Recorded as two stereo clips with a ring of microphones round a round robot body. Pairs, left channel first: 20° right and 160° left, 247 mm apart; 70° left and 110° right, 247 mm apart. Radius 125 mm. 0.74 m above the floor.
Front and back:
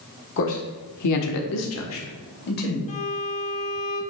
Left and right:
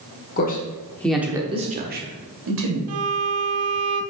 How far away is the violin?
About 0.9 m.